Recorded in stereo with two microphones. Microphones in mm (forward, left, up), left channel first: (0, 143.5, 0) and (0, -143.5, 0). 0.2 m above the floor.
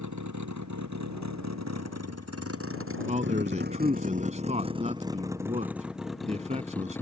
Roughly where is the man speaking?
Right.